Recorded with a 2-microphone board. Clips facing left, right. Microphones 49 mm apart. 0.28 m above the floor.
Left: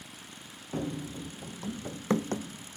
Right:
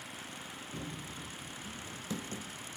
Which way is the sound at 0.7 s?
55° left (ahead or behind).